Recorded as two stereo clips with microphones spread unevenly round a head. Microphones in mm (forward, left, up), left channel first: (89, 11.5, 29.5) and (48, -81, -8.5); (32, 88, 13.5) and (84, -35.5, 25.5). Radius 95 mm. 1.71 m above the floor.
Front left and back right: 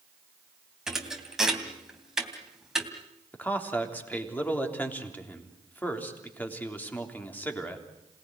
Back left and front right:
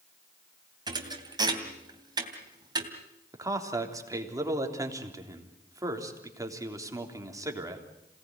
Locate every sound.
0.9 s a thud: 15° right, 3 m
3.3 s a man speaking: 5° right, 3.5 m